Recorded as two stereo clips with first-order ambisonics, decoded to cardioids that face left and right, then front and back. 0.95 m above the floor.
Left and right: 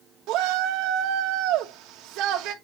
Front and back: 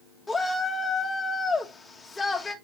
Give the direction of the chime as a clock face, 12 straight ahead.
I don't hear a chime.